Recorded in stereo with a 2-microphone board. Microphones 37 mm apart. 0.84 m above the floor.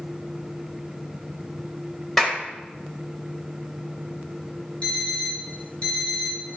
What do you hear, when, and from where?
2.2 s a clap: 5° left (ahead or behind), 4 m
4.8 s an alarm clock: 35° left (ahead or behind), 3.5 m